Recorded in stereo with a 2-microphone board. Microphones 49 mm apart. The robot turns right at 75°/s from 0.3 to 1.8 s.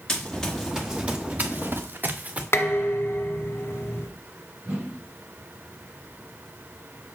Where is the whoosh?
30° right (ahead or behind), 4.5 m.